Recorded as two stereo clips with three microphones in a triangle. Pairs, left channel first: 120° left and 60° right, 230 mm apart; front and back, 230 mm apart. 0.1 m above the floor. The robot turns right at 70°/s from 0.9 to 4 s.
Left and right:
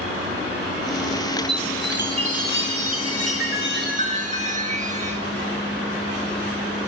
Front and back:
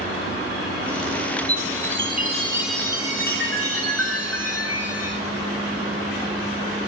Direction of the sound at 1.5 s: 175° right.